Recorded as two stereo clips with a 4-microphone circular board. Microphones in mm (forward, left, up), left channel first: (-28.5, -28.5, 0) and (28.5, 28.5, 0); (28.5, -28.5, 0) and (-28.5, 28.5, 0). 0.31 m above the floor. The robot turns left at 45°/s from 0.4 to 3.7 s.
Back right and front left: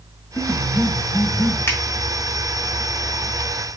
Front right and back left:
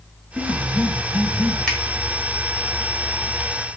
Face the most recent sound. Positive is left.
turn(degrees=155)